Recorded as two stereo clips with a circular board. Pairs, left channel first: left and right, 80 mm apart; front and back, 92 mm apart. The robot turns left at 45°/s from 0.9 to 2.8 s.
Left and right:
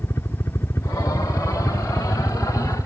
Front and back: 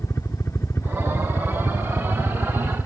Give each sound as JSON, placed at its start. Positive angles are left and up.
{"t": 0.0, "sound": "a helicopter", "azimuth_deg": 50}